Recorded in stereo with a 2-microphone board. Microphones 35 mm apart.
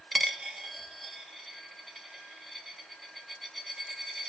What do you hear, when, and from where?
0.1 s a dropped coin: 5° left (ahead or behind), 0.8 m